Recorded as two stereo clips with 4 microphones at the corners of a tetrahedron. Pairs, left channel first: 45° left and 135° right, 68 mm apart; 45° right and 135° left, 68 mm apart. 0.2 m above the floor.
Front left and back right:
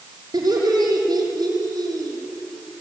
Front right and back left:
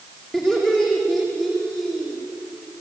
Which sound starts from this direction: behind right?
Laughter, at 0.3 s.